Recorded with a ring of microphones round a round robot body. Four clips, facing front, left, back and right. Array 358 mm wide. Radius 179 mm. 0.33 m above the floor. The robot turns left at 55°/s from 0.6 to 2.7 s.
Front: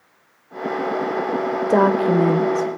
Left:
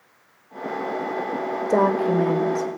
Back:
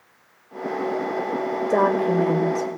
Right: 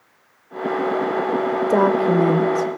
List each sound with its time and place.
1.7 s a woman speaking: 15° right, 1.2 m; by 2.7 s 70° right, 1.2 m